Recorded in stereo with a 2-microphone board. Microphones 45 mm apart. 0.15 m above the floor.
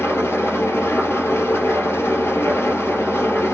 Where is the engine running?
65° left (ahead or behind), 1.7 m.